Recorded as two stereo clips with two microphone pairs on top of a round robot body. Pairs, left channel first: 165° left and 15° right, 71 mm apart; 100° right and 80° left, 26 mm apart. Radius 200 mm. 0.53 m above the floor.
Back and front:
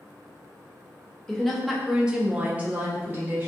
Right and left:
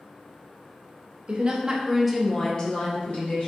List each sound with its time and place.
1.3 s a woman speaking: 75° left, 0.7 m; by 3.5 s 80° right, 0.9 m